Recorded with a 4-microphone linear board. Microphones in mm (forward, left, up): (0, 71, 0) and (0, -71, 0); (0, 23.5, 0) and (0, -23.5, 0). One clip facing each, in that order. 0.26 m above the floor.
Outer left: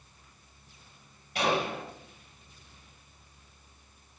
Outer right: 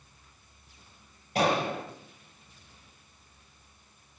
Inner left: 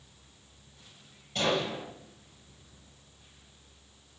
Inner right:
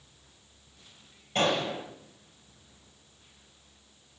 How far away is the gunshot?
About 6.5 m.